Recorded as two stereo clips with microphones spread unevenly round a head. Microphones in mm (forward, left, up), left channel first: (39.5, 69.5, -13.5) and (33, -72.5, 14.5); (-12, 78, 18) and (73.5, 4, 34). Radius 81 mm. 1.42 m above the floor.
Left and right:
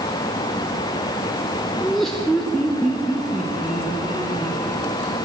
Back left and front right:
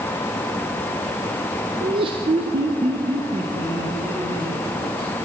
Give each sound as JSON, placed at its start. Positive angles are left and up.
{"t": 1.8, "sound": "laughter", "azimuth_deg": -10, "distance_m": 0.6}